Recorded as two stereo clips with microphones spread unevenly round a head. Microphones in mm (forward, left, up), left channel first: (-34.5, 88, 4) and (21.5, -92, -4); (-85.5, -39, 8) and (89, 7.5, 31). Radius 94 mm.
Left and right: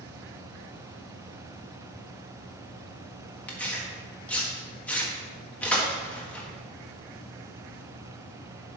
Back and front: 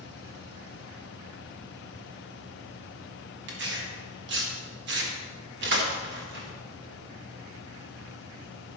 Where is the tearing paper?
25° left, 1.7 m.